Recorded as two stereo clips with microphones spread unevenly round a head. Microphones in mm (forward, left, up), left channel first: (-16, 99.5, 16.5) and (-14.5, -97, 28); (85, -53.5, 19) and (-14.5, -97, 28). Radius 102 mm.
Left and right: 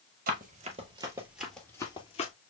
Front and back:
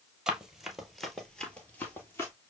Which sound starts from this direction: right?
Running footsteps, at 0.3 s.